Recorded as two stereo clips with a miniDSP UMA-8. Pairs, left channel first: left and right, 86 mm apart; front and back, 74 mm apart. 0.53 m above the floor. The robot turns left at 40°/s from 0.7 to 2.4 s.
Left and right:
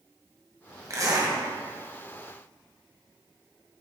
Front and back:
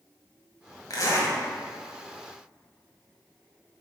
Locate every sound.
0.9 s a zipper: 35° right, 1.7 m; by 1.4 s 55° right, 1.7 m